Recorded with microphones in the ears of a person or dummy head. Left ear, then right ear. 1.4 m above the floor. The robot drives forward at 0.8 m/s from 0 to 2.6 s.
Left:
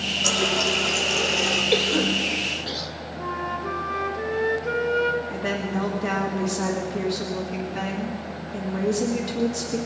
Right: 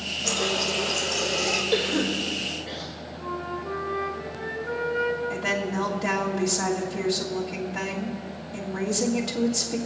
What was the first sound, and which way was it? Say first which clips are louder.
A running tap: left 3 dB; 70° left (ahead or behind).